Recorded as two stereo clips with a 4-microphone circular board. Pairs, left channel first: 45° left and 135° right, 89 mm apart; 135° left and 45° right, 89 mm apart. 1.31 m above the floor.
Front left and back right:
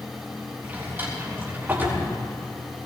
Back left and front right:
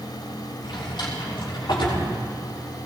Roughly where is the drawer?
Behind.